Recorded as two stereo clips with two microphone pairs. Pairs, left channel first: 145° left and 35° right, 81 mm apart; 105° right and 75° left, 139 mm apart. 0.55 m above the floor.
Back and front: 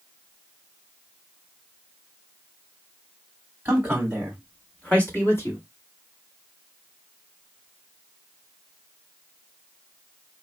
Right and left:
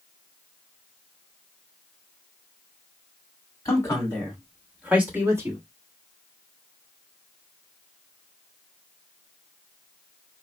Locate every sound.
3.6 s a man speaking: 70° right, 1.3 m; by 5.6 s 125° left, 1.4 m